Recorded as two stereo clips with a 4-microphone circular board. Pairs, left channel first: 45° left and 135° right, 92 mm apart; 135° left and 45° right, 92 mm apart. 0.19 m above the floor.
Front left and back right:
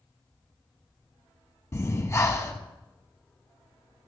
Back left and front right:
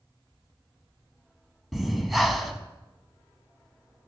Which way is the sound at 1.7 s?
45° left.